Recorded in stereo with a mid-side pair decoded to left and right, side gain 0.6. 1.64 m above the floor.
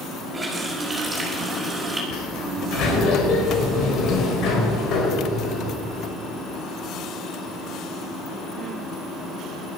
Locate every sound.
0.3 s a running tap: 20° right, 5.5 m
2.1 s a sliding door: 60° left, 4 m